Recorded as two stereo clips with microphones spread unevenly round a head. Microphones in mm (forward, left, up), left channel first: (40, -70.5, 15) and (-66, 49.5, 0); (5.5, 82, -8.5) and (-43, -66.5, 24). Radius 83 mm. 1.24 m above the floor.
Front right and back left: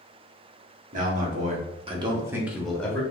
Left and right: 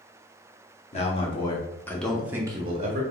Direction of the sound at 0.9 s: 105° left.